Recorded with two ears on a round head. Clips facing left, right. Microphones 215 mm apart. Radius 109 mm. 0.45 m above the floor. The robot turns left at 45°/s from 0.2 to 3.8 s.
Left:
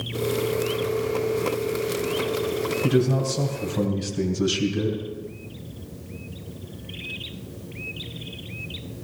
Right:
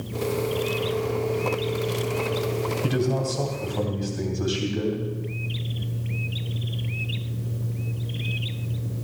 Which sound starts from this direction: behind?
A man speaking, at 2.8 s.